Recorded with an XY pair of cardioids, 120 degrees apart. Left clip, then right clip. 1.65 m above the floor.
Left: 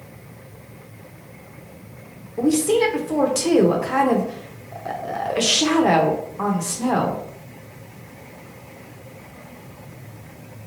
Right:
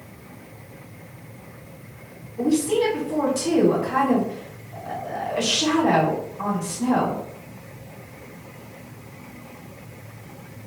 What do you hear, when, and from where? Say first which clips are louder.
2.4 s a woman speaking: left 3 dB; 60° left, 0.8 m